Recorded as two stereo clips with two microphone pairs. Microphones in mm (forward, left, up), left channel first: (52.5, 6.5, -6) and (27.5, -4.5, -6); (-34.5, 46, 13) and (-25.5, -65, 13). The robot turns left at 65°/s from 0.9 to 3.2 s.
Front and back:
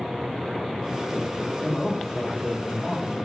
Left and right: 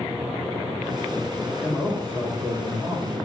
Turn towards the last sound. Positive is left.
turn(degrees=-120)